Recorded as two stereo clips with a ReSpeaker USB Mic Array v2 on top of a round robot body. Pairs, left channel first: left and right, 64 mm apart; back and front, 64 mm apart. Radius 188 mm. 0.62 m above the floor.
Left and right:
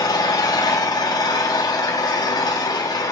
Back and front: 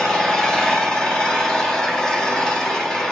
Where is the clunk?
No clunk in this recording.